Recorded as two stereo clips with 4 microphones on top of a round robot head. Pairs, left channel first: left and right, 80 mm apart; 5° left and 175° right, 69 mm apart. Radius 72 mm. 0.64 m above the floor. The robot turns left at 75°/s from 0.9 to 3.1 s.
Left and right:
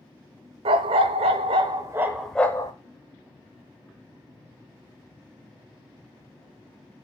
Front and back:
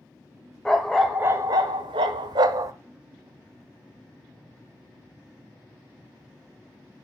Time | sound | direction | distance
0.7 | a dog barking | 75° right | 0.6 m